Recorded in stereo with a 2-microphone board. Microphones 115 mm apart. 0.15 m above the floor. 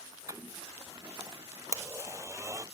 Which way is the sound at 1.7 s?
25° right (ahead or behind).